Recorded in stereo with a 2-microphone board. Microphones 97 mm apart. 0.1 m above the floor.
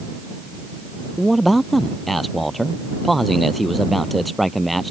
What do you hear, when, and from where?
1.2 s a man speaking: centre (ahead or behind)